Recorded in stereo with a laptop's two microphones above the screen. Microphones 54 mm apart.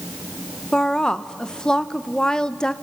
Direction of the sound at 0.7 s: 15° left (ahead or behind).